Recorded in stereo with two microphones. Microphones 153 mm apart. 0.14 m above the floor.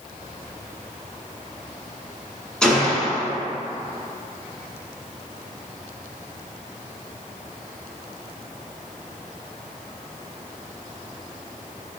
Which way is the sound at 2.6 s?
5° left (ahead or behind).